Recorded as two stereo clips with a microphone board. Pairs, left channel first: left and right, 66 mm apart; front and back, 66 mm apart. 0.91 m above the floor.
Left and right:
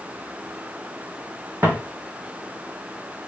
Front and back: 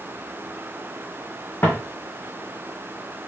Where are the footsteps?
35° right, 1.7 m.